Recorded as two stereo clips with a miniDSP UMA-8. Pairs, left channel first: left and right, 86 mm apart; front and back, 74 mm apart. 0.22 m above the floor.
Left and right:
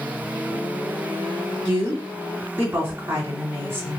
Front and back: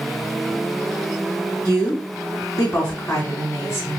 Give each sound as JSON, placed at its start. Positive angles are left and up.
{"t": 1.6, "sound": "a woman speaking", "azimuth_deg": -40, "distance_m": 1.7}